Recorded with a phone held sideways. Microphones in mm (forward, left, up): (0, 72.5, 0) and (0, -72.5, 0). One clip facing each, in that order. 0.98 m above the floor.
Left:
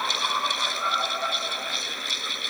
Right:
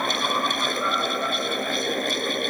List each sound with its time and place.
0.0 s a fan: 55° right (ahead or behind)